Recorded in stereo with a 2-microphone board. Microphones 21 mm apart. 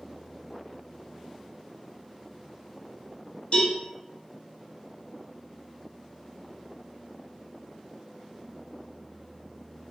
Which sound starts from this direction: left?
A cowbell, at 3.5 s.